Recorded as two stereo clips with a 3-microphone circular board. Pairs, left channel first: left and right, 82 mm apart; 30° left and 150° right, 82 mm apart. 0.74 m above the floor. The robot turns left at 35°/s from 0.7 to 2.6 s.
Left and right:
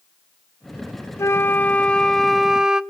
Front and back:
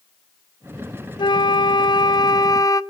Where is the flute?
40° left, 0.5 m; by 2.8 s 10° right, 0.5 m.